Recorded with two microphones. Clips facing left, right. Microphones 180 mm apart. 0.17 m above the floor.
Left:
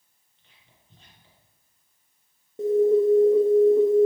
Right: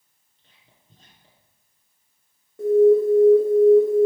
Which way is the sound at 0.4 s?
40° right (ahead or behind).